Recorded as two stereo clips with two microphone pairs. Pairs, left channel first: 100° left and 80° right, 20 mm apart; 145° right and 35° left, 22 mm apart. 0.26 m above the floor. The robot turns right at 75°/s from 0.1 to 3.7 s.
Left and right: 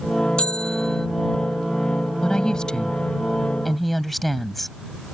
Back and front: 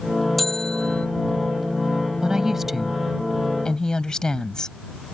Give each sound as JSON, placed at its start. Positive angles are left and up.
{"t": 0.4, "sound": "a bell", "azimuth_deg": 125}
{"t": 2.2, "sound": "a woman speaking", "azimuth_deg": 70}